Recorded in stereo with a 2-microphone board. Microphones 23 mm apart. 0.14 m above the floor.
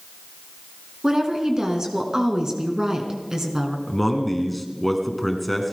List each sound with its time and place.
1.0 s a woman speaking: 30° right (ahead or behind), 1.8 m
3.9 s a man speaking: centre (ahead or behind), 1.6 m